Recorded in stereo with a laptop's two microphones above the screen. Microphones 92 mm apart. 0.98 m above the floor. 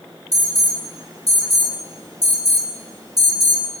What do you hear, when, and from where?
0.3 s an alarm: 40° right (ahead or behind), 4 m